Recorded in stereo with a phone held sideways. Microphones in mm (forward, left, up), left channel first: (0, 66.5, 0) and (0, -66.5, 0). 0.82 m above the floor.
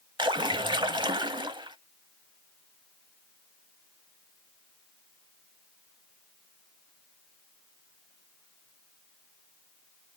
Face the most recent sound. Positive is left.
turn(degrees=-35)  # may be behind; listen again after turning